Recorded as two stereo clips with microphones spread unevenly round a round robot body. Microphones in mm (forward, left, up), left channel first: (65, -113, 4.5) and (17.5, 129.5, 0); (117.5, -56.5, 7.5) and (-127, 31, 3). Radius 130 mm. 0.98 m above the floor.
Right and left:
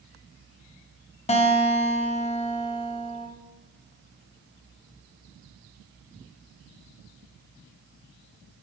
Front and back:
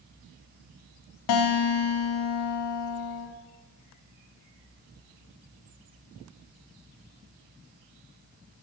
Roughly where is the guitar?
Ahead.